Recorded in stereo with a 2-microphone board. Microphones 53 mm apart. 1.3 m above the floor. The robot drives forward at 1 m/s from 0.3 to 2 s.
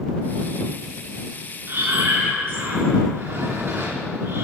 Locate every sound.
1.7 s breathing: 50° right (ahead or behind), 2.5 m; by 4.4 s 60° right (ahead or behind), 2.5 m